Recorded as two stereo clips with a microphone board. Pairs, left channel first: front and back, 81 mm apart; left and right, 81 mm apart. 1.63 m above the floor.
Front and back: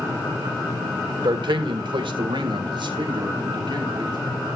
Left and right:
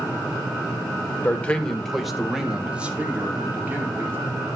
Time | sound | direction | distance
1.2 | a man speaking | 155° left | 1.2 m